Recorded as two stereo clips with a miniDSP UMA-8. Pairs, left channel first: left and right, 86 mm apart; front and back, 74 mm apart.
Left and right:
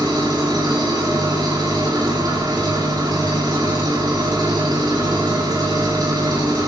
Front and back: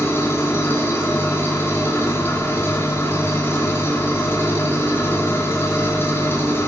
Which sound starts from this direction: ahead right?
An engine running, at 0.0 s.